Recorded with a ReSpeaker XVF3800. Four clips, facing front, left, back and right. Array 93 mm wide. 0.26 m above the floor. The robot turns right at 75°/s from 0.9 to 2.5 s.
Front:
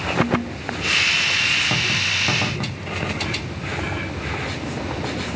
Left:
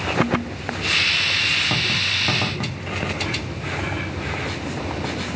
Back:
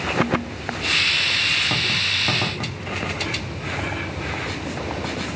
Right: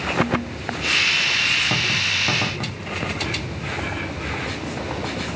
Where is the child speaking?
No child speaking in this recording.